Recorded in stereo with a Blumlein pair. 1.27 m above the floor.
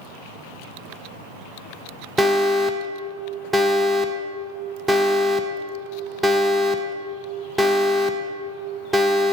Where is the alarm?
5° right, 0.6 m.